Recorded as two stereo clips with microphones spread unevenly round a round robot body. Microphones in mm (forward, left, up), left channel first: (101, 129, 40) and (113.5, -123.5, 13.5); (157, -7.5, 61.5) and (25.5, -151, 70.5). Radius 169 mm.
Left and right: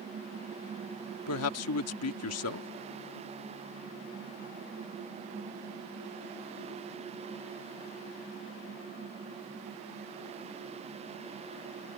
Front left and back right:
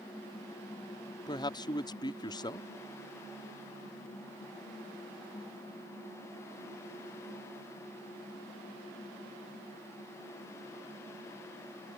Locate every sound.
1.3 s a man speaking: 115° left